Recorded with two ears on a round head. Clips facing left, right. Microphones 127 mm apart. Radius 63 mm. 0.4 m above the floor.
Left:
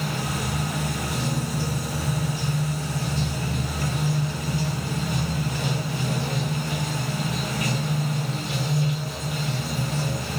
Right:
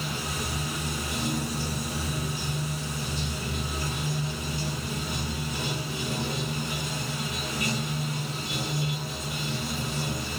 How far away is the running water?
About 1.3 m.